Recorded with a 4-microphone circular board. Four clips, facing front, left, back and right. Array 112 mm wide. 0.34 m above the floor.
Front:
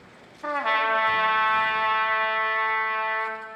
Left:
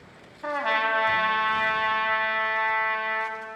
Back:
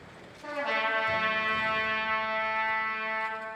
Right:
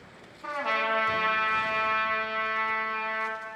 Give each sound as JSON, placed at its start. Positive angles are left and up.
{"t": 0.4, "sound": "a trumpet", "azimuth_deg": 45, "distance_m": 2.5}